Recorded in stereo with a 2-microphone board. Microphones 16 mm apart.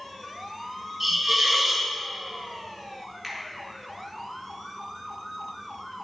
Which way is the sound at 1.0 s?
20° right (ahead or behind).